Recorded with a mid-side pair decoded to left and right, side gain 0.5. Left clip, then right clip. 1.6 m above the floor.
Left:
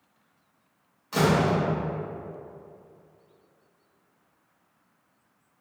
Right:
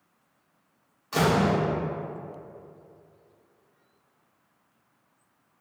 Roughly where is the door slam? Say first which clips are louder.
Even; ahead.